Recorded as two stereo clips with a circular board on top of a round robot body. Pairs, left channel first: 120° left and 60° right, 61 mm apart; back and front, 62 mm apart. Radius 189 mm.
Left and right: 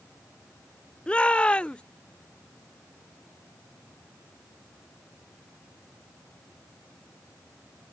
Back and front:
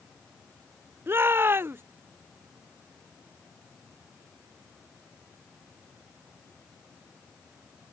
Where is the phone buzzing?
No phone buzzing in this recording.